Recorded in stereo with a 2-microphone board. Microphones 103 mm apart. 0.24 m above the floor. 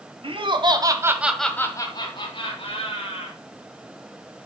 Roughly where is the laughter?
Right.